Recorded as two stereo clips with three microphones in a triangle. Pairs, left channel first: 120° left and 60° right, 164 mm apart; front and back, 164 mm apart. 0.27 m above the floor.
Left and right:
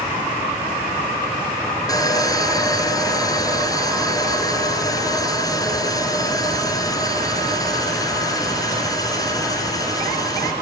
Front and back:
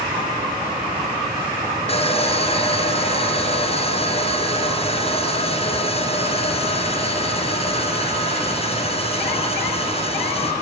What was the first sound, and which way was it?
Sawing, 50° left.